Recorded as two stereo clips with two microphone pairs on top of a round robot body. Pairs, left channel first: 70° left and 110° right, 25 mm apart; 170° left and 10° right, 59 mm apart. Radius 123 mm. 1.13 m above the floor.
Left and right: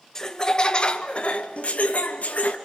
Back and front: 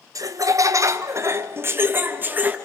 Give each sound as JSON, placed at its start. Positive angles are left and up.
{"t": 0.1, "sound": "laughter", "azimuth_deg": -5, "distance_m": 1.2}